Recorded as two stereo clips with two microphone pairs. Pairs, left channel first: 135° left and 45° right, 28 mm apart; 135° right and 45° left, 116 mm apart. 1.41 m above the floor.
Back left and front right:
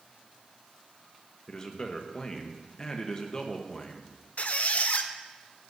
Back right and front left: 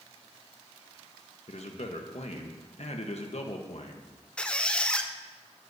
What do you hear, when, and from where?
1.5 s a man speaking: 155° right, 1.2 m
4.4 s a squeak: 145° left, 0.6 m